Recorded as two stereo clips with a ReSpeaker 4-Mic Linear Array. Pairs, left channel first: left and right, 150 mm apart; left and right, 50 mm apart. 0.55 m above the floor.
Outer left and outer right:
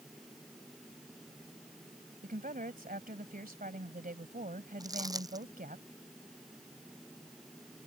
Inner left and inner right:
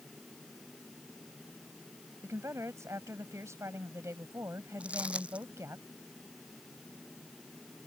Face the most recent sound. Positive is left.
turn(degrees=-25)  # may be behind; listen again after turning